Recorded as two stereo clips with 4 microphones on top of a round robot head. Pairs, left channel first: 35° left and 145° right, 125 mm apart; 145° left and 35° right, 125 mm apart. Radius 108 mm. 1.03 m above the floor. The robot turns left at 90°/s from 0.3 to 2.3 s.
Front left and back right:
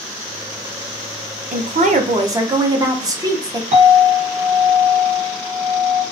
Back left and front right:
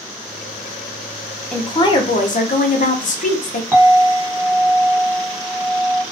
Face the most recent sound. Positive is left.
turn(degrees=-110)